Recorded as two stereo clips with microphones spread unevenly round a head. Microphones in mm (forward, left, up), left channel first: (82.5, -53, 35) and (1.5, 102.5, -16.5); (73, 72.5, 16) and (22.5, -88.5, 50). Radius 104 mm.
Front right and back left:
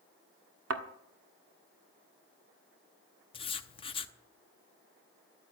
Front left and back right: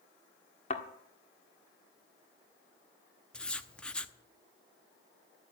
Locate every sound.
0.7 s a thud: 135° left, 1.4 m
3.3 s writing: 20° right, 0.8 m